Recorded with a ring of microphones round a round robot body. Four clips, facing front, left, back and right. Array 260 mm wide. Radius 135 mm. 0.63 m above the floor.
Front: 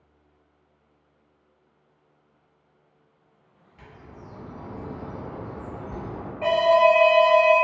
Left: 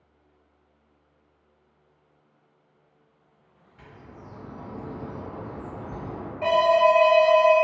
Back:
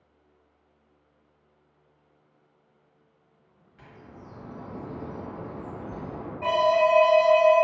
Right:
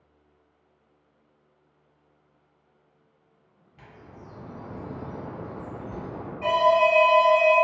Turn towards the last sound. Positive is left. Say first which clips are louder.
# left 1 dB, front 4 dB
turn(degrees=10)